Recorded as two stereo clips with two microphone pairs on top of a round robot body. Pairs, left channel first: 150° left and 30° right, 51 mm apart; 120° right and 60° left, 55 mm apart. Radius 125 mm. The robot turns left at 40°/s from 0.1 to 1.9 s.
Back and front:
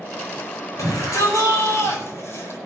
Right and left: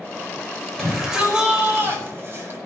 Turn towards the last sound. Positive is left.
turn(degrees=115)